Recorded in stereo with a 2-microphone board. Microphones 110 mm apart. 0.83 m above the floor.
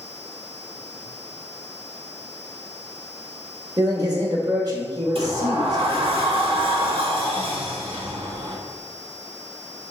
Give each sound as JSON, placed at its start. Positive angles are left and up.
{"t": 3.8, "sound": "a man speaking", "side_deg": -35, "distance_m": 1.3}
{"t": 5.2, "sound": "a sliding door", "side_deg": -60, "distance_m": 1.3}